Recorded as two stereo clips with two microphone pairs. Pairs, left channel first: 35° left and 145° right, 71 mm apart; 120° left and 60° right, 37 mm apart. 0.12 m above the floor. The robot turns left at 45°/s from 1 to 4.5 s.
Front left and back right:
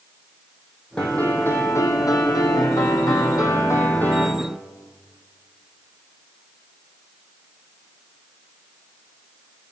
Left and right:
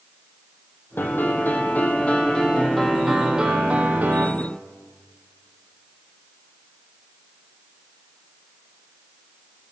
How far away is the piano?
About 1.8 m.